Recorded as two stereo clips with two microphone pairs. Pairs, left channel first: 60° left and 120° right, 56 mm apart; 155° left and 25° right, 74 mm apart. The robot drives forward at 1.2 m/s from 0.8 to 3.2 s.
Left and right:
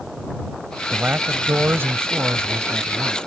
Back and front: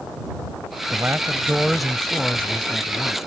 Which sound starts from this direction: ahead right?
A man speaking, at 0.9 s.